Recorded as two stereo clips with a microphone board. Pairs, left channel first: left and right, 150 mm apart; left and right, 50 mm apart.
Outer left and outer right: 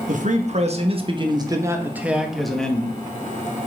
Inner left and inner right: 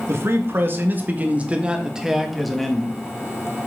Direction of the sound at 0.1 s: 55° right (ahead or behind).